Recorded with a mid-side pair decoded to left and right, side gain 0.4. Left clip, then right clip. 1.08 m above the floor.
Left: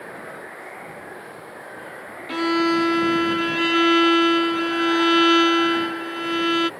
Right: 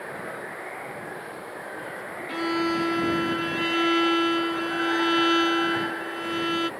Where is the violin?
50° left.